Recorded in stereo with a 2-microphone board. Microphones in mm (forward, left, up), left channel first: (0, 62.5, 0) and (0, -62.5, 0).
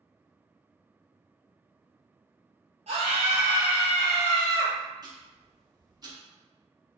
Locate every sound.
2.9 s a scream: 60° right (ahead or behind), 0.6 m; by 4.8 s 25° left (ahead or behind), 0.9 m
5.0 s ticking: 35° right (ahead or behind), 0.8 m